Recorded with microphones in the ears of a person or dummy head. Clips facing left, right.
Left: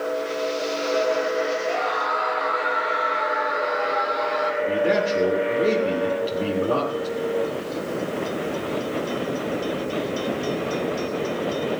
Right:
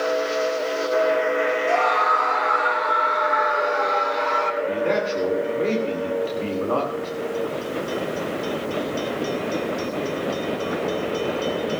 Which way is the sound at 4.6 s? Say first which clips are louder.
Left 2 dB; 10° left (ahead or behind).